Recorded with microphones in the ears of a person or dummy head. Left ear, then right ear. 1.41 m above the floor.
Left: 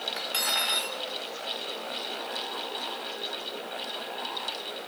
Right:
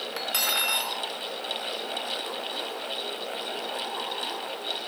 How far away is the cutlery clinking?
About 0.6 m.